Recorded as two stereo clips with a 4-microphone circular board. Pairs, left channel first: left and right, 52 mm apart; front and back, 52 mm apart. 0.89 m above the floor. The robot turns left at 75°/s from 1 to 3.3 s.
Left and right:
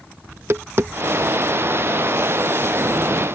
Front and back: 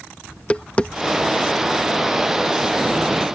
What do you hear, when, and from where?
0.3 s tapping: 60° right; by 2.8 s 170° left